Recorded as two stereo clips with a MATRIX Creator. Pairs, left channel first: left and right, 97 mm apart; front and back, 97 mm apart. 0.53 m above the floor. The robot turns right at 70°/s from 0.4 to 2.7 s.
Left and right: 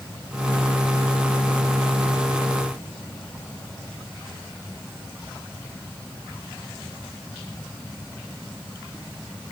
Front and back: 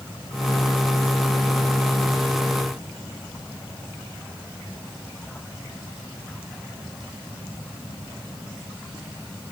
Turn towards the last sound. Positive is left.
No sound to turn to.